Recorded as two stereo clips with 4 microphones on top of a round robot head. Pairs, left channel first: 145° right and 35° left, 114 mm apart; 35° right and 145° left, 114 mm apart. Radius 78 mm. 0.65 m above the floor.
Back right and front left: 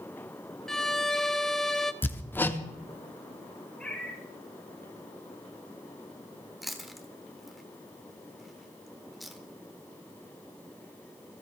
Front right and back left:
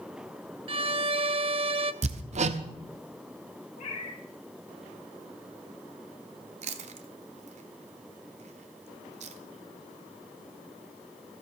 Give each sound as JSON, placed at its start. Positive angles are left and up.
{"t": 0.7, "sound": "a violin", "azimuth_deg": 130, "distance_m": 0.7}
{"t": 2.0, "sound": "hammering", "azimuth_deg": 140, "distance_m": 0.9}
{"t": 3.8, "sound": "a cat meowing", "azimuth_deg": -65, "distance_m": 3.5}
{"t": 6.6, "sound": "chewing", "azimuth_deg": 125, "distance_m": 1.1}